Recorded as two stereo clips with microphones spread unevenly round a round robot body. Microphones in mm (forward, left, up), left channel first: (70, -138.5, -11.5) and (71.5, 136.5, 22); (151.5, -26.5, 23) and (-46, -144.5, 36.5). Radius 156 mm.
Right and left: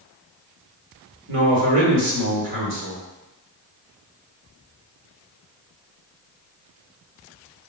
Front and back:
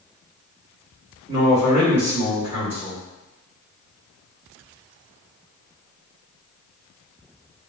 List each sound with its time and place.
1.3 s a man speaking: 125° left, 1.7 m